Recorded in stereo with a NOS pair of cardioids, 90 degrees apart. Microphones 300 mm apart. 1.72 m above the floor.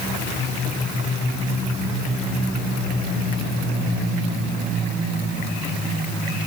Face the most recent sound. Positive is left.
No sound to turn to.